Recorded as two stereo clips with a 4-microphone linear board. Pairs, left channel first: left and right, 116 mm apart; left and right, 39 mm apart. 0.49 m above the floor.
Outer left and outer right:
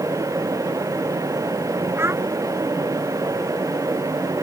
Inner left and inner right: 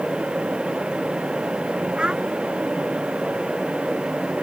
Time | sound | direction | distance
2.0 | a child speaking | 20° right (ahead or behind) | ?